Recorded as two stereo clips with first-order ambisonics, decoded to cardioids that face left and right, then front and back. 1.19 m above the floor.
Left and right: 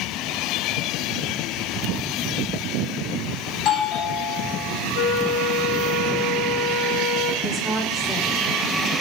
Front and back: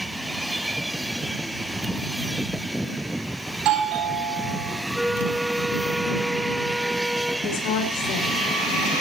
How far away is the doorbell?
About 9 m.